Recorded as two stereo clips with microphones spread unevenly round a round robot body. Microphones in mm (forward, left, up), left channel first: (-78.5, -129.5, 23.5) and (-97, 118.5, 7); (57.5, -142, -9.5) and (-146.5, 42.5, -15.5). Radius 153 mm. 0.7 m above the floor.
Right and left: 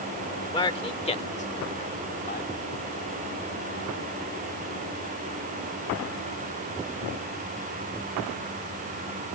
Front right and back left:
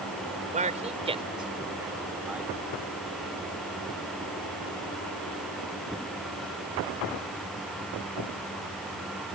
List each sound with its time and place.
0.5 s a man speaking: 160° right; by 2.5 s 135° right